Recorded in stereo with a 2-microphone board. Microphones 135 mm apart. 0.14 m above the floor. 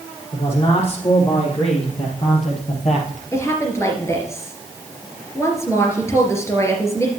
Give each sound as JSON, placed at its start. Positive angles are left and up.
{"t": 0.3, "sound": "a man speaking", "side_deg": 40, "distance_m": 4.5}
{"t": 3.3, "sound": "a woman speaking", "side_deg": 20, "distance_m": 3.0}